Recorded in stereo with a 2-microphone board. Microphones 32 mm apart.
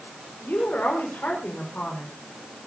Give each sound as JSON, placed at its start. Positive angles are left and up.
{"t": 0.4, "sound": "a woman speaking", "side_deg": 85, "distance_m": 5.5}